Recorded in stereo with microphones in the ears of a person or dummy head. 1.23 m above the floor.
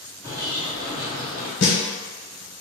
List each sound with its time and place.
0.2 s a bird: 20° right (ahead or behind), 0.9 m
1.6 s a snare drum: 65° left (ahead or behind), 1.0 m